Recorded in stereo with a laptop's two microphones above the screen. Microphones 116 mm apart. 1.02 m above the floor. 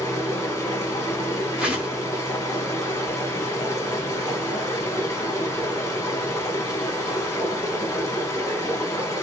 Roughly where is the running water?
Left.